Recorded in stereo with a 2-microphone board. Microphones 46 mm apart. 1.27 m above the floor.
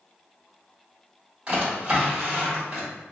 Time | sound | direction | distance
1.5 | a drawer | 30° right (ahead or behind) | 1.5 m